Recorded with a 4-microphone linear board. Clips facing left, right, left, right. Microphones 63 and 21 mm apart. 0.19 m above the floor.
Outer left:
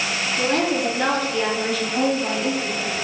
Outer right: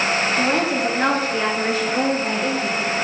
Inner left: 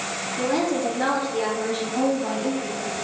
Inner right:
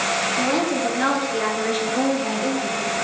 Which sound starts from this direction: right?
A woman speaking, at 0.4 s.